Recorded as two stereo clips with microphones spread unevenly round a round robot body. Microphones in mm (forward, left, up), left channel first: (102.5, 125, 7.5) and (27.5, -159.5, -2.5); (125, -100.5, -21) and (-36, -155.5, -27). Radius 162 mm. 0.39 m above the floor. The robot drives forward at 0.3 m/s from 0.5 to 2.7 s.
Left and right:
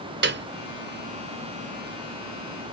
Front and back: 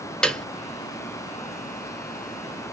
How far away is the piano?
About 0.9 m.